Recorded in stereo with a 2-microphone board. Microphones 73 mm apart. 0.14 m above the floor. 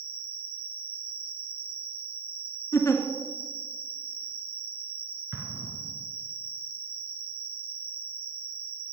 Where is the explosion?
35° right (ahead or behind), 2.5 m.